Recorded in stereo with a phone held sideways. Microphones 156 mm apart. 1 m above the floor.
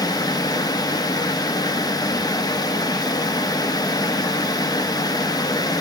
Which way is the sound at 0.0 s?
25° left (ahead or behind).